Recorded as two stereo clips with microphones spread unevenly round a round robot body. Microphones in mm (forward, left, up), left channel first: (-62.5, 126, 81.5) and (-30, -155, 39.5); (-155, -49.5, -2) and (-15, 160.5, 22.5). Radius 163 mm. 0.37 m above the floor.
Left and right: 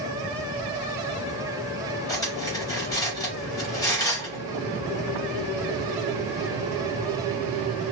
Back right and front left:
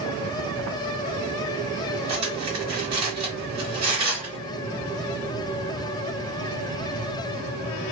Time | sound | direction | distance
2.1 | cutlery clinking | 15° left | 1.3 m